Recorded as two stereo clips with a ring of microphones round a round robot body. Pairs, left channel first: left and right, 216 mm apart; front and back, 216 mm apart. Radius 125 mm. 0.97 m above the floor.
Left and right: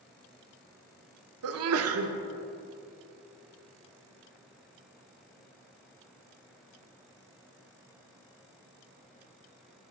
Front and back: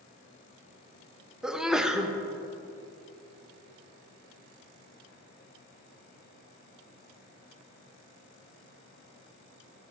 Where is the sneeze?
90° right, 0.6 m.